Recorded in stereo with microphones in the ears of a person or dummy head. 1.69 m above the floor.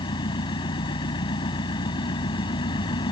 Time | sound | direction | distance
0.0 | an engine running | 30° left (ahead or behind) | ?